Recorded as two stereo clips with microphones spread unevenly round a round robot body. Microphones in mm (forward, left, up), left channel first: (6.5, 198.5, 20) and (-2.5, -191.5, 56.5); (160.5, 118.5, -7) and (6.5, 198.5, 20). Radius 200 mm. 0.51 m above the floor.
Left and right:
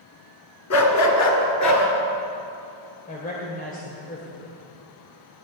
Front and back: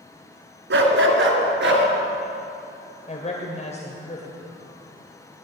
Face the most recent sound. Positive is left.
turn(degrees=20)